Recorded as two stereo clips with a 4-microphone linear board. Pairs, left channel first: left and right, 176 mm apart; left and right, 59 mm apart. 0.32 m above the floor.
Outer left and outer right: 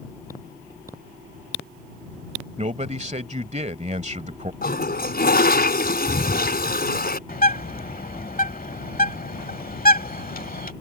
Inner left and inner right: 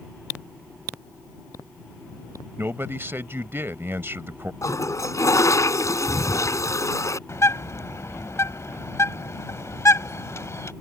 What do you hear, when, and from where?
2.6 s a man speaking: 40° right (ahead or behind)
4.6 s a toilet flushing: 60° left (ahead or behind)
7.3 s a bird: 55° left (ahead or behind)